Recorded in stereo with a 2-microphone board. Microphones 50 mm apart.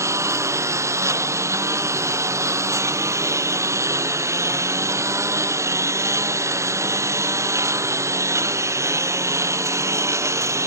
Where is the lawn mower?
75° right (ahead or behind).